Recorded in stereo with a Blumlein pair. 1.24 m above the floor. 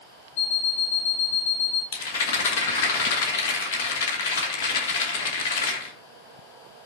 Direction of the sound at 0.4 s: 35° left.